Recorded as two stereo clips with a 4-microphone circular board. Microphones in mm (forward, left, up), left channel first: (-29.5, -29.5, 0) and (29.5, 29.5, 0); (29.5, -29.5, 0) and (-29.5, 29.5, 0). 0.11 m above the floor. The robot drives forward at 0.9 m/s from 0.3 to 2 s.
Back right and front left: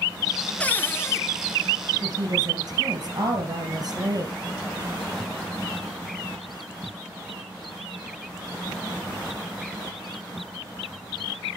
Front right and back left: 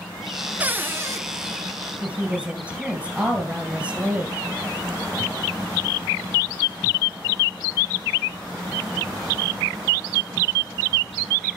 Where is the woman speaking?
60° left, 2.5 m.